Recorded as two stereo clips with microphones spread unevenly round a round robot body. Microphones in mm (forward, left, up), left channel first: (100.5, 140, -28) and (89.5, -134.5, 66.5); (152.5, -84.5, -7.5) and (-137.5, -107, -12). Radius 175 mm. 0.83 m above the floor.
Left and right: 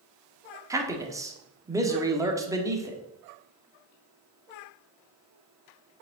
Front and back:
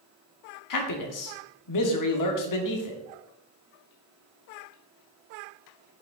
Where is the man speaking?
10° right, 1.6 m.